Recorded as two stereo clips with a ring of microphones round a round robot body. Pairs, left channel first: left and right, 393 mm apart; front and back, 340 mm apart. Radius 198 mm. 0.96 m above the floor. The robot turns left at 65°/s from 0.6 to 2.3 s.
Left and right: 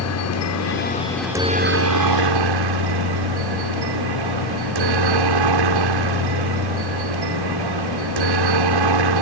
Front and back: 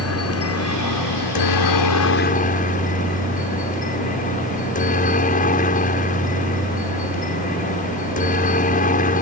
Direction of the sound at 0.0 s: 40° left.